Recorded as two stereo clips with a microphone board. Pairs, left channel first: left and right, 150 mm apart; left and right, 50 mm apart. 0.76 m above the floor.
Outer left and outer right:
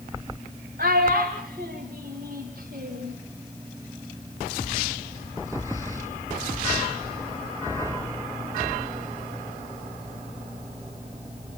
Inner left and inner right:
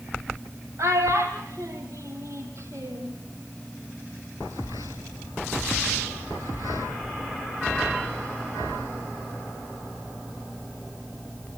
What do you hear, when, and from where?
0.8 s a child speaking: 70° right (ahead or behind), 2 m